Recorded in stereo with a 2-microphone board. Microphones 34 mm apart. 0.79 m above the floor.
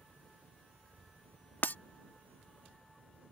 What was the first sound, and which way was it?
A helicopter, 60° right (ahead or behind).